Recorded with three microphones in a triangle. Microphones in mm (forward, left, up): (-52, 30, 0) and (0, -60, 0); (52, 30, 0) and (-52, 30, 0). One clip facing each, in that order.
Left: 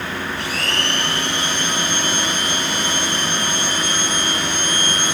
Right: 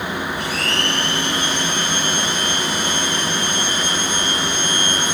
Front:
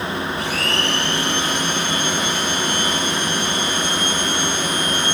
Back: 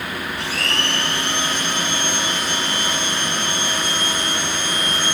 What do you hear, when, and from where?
0.4 s a blender: 125° left, 3.5 m